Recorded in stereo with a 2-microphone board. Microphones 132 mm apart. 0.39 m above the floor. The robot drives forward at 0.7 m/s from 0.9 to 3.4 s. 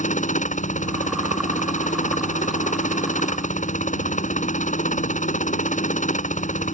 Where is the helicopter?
70° left (ahead or behind).